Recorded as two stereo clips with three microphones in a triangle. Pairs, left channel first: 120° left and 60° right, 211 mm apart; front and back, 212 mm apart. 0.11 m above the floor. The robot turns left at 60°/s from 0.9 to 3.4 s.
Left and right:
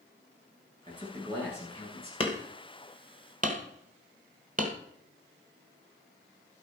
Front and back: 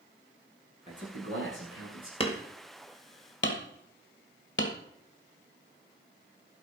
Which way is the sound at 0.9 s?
125° right.